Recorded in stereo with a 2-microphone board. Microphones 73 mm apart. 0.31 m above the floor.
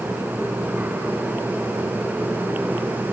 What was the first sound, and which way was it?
Only background noise.